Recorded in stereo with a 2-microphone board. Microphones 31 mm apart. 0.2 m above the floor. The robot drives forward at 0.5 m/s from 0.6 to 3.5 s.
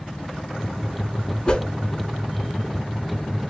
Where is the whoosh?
25° left (ahead or behind), 0.6 m.